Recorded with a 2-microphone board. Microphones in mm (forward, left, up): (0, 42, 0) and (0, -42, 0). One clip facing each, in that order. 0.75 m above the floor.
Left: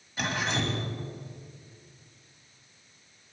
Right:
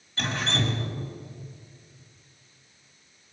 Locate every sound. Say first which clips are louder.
0.2 s dripping: right 1 dB; 10° left (ahead or behind), 1.6 m